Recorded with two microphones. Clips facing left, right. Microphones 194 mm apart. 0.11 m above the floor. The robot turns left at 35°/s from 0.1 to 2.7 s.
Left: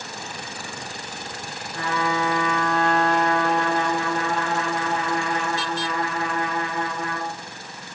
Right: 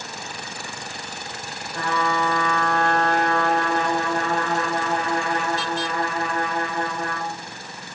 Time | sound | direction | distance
1.7 | a trumpet | 70° right | 0.8 m